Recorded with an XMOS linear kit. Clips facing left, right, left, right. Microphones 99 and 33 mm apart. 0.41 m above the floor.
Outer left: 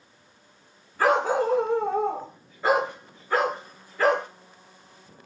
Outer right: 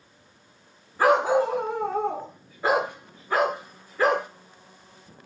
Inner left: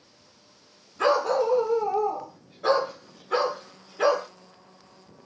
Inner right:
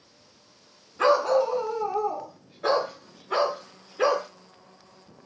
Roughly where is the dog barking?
Centre.